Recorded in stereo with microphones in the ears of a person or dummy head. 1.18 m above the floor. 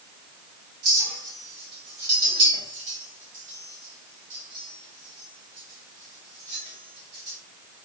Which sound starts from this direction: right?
A clink, at 0.8 s.